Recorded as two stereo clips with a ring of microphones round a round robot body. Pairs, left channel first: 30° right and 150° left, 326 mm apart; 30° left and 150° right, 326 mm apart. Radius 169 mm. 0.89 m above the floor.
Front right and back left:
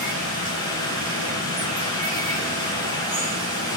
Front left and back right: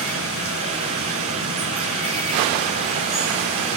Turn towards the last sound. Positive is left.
turn(degrees=175)